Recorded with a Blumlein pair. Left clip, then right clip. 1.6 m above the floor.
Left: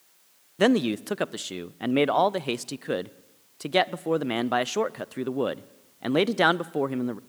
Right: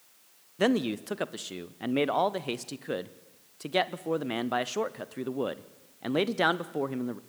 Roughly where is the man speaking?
Ahead.